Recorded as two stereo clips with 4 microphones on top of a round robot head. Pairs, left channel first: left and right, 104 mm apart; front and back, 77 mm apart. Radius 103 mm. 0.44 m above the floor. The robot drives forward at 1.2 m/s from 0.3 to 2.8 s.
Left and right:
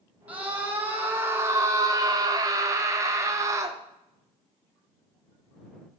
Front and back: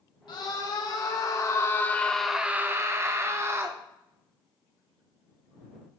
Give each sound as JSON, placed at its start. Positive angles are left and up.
{"t": 0.3, "sound": "a scream", "azimuth_deg": -15, "distance_m": 2.5}